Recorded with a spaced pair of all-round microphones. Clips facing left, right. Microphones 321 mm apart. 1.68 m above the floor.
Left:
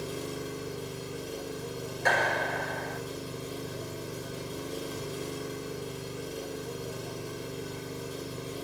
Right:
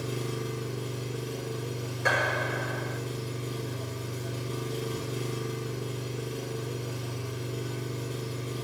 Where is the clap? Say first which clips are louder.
Even; 5° right (ahead or behind), 6.5 m.